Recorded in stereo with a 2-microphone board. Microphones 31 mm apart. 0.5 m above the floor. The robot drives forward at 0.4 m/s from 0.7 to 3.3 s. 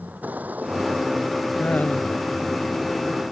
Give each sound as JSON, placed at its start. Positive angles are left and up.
{"t": 0.0, "sound": "a vehicle", "side_deg": -60}
{"t": 1.6, "sound": "laughter", "side_deg": 55}